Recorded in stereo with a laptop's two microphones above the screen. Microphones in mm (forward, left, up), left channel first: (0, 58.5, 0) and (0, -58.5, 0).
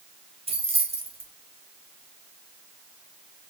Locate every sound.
0.5 s keys jangling: 55° right (ahead or behind), 0.5 m